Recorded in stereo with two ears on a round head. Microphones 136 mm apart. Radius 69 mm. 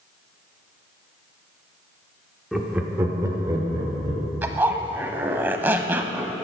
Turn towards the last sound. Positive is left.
turn(degrees=-15)  # may be behind; listen again after turning